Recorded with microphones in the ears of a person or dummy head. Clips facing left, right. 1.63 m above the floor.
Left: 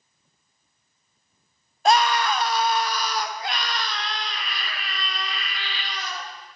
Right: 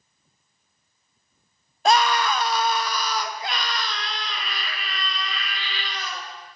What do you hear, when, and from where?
1.9 s a scream: 60° right (ahead or behind), 0.5 m; by 6.3 s 70° right (ahead or behind), 3 m